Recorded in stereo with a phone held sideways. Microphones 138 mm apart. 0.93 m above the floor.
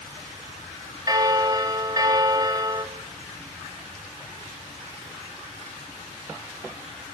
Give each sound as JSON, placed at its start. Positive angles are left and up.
{"t": 1.1, "sound": "a bell", "side_deg": -30, "distance_m": 2.0}